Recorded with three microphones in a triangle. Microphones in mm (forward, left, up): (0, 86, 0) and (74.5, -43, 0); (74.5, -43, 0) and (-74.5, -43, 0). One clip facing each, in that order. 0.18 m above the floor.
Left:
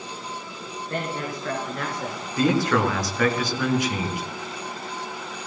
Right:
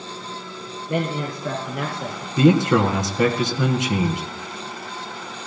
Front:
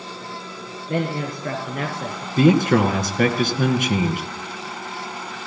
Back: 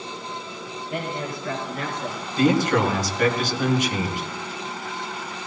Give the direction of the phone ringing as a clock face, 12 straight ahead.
I don't hear a phone ringing.